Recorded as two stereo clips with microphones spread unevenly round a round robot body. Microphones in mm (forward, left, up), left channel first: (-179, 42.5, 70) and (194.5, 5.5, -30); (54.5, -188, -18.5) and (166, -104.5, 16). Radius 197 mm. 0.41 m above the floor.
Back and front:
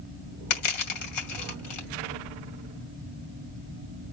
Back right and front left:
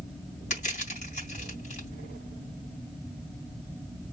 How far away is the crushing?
About 2.5 m.